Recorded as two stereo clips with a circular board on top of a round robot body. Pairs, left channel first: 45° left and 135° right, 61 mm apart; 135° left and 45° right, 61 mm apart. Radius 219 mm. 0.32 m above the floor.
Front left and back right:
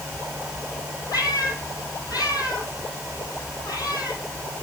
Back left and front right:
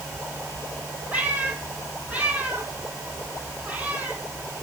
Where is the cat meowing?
25° left, 4.5 m.